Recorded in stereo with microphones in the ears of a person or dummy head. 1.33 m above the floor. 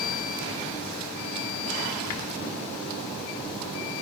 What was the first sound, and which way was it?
Only background noise.